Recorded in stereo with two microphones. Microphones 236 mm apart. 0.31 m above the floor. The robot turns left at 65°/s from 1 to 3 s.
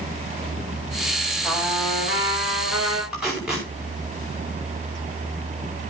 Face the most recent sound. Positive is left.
turn(degrees=-5)  # may be behind; listen again after turning